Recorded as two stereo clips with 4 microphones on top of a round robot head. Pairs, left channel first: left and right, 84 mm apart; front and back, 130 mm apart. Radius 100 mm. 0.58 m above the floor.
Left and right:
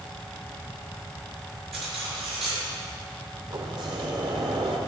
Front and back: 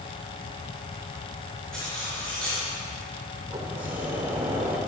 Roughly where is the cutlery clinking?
Right.